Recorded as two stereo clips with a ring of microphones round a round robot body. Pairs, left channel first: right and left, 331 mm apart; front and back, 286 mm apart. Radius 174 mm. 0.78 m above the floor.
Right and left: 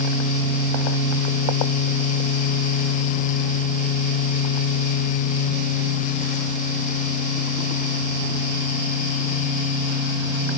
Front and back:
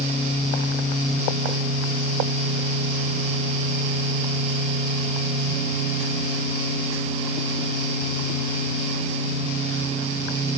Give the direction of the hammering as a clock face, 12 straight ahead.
No hammering in this recording.